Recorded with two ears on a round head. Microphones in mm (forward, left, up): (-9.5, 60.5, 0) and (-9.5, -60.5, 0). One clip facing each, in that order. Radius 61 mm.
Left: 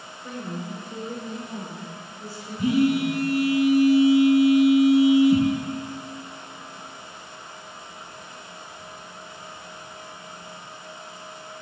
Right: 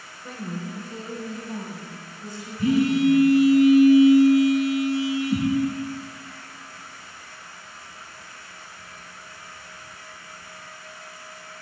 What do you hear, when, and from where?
0.2 s a woman speaking: centre (ahead or behind), 0.9 m; by 3.3 s 10° left (ahead or behind), 2.5 m
2.6 s a phone buzzing: 15° left (ahead or behind), 1.3 m